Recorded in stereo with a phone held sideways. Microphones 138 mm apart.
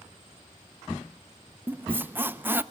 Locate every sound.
1.7 s a squeak: 15° right (ahead or behind), 0.5 m